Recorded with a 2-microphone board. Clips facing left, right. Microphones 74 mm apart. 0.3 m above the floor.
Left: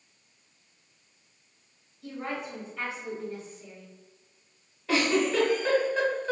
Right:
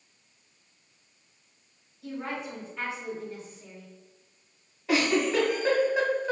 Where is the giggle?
10° right (ahead or behind), 0.9 m.